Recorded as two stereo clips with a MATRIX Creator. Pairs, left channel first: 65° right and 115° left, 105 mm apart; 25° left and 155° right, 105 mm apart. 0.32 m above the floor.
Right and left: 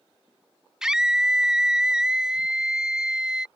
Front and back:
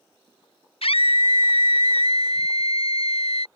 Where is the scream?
30° left.